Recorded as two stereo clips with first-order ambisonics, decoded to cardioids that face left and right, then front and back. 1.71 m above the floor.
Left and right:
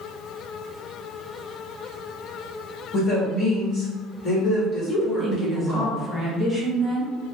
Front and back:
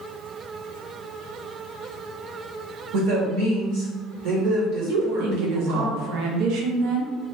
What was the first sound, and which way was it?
A woman speaking, 165° left.